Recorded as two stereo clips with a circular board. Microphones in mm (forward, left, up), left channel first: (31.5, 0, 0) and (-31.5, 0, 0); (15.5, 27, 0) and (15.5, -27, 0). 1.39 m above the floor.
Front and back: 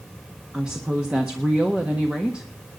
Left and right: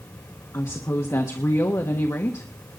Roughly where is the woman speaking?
Left.